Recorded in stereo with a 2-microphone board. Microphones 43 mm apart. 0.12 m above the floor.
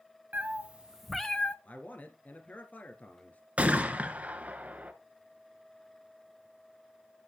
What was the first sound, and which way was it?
A cat meowing, 40° right (ahead or behind).